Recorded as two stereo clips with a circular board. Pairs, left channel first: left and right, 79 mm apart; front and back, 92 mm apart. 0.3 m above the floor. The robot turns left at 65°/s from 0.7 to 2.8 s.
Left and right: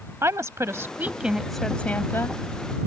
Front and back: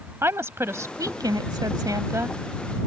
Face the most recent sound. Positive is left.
turn(degrees=95)